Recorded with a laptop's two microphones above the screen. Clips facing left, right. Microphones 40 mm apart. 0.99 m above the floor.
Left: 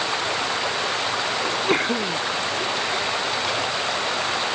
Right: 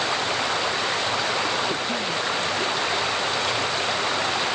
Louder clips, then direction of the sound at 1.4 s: Left 3 dB; 60° left (ahead or behind).